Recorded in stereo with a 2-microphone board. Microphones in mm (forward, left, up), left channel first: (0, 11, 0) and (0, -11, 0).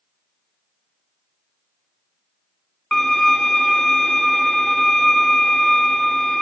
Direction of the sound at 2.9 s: 20° left (ahead or behind).